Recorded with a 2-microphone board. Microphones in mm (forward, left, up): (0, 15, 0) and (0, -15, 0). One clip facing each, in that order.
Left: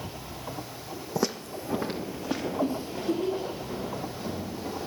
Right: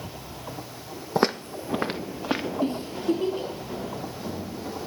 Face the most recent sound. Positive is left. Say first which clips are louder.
# right 2 dB
turn(degrees=-50)  # may be behind; listen again after turning